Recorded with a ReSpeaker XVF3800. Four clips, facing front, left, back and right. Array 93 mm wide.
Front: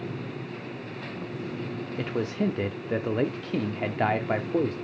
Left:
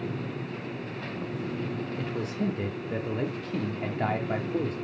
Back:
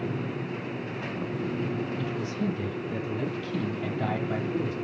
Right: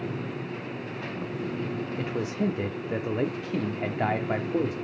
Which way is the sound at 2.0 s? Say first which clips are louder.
Right 3 dB, front 2 dB; 20° right.